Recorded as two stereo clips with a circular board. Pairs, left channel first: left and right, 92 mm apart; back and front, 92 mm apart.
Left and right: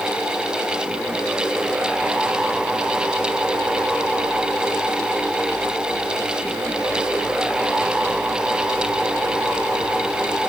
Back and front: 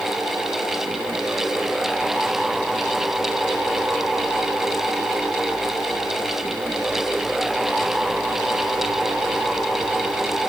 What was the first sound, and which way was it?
Only background noise.